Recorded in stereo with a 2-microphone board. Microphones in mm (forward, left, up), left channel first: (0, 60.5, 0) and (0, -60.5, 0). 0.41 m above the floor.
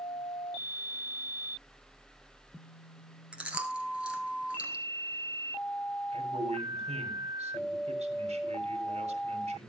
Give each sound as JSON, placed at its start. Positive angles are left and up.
{"t": 3.3, "sound": "chewing", "side_deg": -10, "distance_m": 1.9}
{"t": 6.1, "sound": "a man speaking", "side_deg": -70, "distance_m": 2.5}